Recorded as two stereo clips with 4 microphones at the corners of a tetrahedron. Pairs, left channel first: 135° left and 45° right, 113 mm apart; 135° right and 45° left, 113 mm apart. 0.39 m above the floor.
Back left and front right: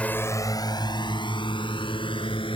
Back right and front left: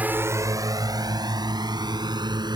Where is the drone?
85° left; by 2.6 s 95° left.